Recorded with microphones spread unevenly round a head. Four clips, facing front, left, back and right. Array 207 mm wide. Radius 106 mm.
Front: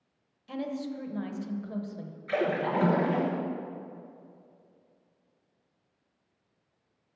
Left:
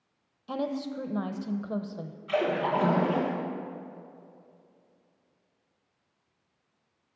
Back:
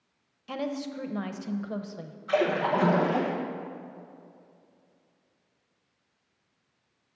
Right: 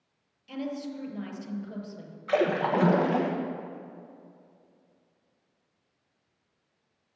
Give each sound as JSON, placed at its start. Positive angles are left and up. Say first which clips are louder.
{"t": 0.5, "sound": "a woman speaking", "louder": "left 3 dB, back 2 dB", "azimuth_deg": 125, "distance_m": 0.8}
{"t": 2.3, "sound": "a splash", "louder": "right 2 dB, back 3 dB", "azimuth_deg": -70, "distance_m": 1.0}